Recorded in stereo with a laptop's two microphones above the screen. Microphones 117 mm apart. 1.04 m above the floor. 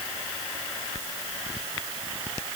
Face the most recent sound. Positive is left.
No sound to turn to.